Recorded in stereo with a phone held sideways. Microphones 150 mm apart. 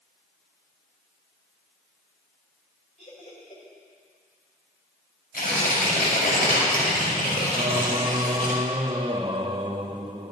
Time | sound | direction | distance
3.0 | laughter | 55° left (ahead or behind) | 5.5 m
5.3 | tearing paper | 85° left | 5.5 m
7.5 | singing | 30° right (ahead or behind) | 0.7 m